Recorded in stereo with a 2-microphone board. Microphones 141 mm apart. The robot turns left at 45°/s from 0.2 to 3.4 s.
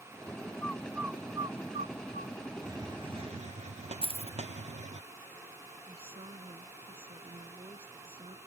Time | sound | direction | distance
0.6 | a bird | 10° left (ahead or behind) | ?
2.6 | a hiss | 20° right | ?
4.0 | keys jangling | 40° right (ahead or behind) | ?
5.8 | a woman speaking | 40° right (ahead or behind) | ?